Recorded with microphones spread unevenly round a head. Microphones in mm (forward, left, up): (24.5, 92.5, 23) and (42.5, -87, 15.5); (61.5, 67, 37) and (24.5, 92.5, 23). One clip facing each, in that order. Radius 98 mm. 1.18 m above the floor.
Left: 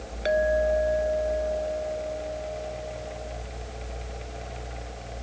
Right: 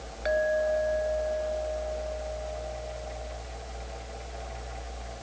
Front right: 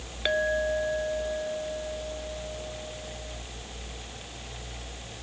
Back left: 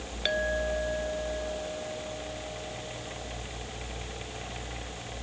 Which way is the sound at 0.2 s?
40° left.